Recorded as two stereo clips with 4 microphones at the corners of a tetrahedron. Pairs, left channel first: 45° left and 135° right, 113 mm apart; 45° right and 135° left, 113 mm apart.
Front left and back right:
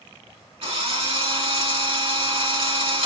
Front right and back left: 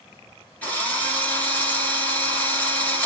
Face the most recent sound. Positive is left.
turn(degrees=-120)